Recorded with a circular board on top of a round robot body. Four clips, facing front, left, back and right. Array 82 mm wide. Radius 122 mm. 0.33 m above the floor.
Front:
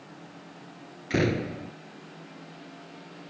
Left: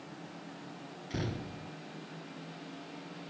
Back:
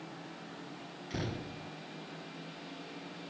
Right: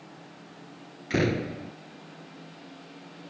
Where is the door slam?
50° right.